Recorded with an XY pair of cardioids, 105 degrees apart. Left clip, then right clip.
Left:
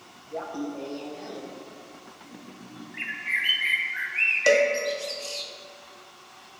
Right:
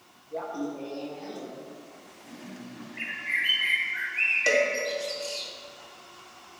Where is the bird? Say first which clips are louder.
Left 1 dB; 30° left, 1.2 m.